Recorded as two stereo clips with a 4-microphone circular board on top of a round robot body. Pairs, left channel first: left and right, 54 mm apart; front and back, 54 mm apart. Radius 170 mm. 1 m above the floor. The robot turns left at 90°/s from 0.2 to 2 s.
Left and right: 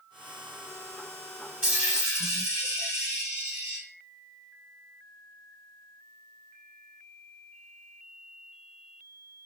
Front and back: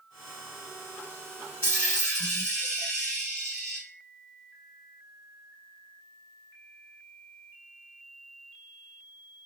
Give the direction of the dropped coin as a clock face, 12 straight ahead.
1 o'clock.